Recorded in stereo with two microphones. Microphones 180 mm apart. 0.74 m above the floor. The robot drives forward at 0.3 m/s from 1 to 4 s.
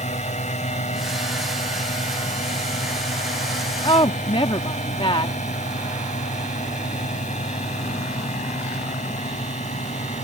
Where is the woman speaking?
30° left (ahead or behind).